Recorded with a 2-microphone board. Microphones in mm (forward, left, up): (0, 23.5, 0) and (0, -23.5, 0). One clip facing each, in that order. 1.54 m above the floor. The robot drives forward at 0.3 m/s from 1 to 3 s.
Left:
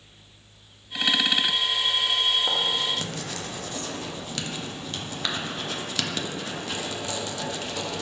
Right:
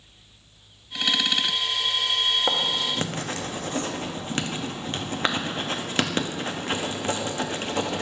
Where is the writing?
30° right (ahead or behind), 0.6 m; by 8.0 s 35° right (ahead or behind), 0.5 m.